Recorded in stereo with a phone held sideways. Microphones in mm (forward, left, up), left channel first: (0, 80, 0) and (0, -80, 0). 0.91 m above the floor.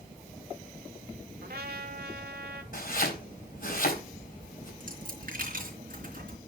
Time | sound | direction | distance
1.4 | a trumpet | 80° right | 1.4 m
2.7 | chopping | 65° left (ahead or behind) | 4 m
4.8 | a dropped coin | 60° right (ahead or behind) | 3.5 m